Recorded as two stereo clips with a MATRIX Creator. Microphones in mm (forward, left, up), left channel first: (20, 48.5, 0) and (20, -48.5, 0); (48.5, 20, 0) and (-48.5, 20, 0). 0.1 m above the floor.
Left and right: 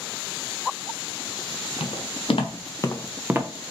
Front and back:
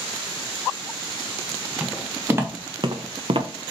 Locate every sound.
1.8 s footsteps: 105° left, 1.8 m; by 3.5 s 145° right, 0.8 m